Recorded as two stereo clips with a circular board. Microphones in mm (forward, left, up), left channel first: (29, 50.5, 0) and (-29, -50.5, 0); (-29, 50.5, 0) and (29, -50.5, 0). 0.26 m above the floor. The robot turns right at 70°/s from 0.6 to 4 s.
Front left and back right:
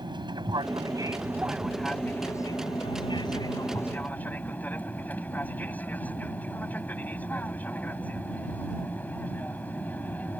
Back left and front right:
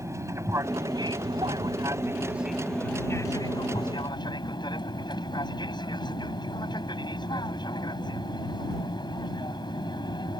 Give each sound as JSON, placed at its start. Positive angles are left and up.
{"t": 0.0, "sound": "an aircraft", "azimuth_deg": -110}